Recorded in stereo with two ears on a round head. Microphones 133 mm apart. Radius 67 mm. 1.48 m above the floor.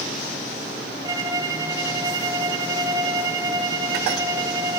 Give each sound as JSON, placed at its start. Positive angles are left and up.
{"t": 1.0, "sound": "a violin", "side_deg": -20, "distance_m": 1.5}